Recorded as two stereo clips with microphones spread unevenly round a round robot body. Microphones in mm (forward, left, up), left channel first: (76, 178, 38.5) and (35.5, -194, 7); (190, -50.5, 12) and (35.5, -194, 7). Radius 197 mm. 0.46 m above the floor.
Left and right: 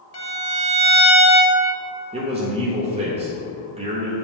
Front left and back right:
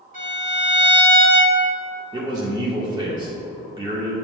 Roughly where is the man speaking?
Behind right.